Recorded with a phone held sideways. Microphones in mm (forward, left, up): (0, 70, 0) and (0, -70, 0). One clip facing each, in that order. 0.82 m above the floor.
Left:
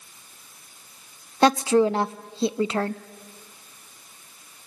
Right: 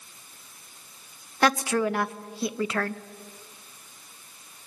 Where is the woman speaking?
25° left (ahead or behind), 0.6 m.